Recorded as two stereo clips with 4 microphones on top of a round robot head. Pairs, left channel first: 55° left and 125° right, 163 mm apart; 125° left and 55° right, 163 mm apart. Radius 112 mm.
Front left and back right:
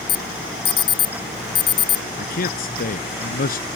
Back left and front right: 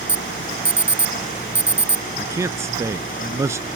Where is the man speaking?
20° left.